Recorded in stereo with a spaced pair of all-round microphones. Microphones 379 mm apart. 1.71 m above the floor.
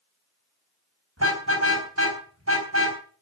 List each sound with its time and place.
1.2 s a car horn: 40° right (ahead or behind), 4 m